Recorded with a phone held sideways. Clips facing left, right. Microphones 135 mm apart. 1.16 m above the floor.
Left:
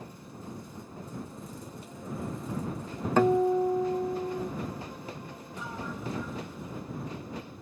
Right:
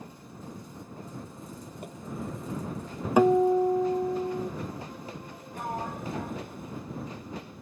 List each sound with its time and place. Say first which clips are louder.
1.8 s tapping: right 3 dB; 55° right (ahead or behind)
3.2 s a guitar: right 3 dB; 10° right (ahead or behind)
5.5 s a sliding door: right 5 dB; 60° right (ahead or behind)